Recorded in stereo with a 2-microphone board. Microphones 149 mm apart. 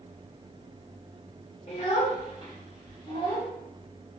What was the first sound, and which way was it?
A child speaking, 45° left (ahead or behind).